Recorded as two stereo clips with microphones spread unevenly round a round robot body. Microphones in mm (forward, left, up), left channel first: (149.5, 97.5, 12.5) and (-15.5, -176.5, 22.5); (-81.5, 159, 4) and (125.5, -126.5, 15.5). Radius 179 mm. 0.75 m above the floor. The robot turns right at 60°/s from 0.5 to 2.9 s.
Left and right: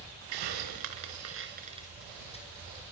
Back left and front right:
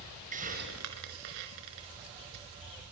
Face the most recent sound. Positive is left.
turn(degrees=20)